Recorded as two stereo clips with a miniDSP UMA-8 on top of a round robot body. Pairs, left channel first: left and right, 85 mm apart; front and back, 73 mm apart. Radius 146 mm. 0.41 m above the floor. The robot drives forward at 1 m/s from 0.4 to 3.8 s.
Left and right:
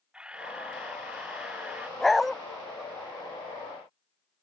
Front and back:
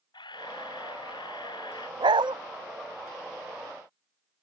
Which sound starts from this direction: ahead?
A camera shutter, at 0.1 s.